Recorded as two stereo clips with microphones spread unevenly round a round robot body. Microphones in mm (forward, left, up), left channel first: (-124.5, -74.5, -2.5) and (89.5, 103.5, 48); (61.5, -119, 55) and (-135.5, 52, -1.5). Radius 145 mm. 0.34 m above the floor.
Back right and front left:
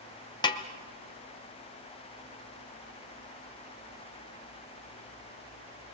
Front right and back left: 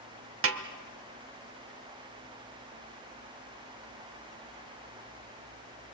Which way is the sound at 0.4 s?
150° left.